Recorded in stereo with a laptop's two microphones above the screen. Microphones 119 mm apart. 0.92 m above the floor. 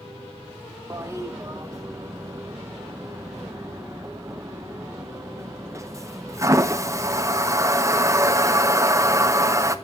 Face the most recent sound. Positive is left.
turn(degrees=-25)  # may be behind; listen again after turning